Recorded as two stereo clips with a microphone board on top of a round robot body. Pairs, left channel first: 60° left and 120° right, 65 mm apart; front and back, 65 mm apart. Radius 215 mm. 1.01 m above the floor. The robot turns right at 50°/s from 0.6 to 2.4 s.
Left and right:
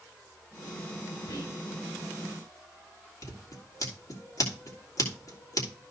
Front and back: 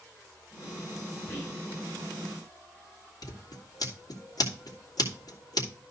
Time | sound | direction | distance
1.3 | whispering | 75° left | 6 m
3.2 | scissors | 25° left | 3 m